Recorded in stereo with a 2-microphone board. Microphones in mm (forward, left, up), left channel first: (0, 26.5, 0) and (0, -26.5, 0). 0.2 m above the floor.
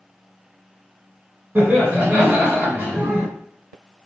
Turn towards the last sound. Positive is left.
turn(degrees=-40)  # may be behind; listen again after turning